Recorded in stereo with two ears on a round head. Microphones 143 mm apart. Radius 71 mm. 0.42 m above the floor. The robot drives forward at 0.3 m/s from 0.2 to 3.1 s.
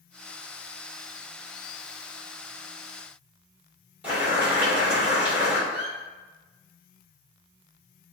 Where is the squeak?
10° right (ahead or behind), 1.1 m.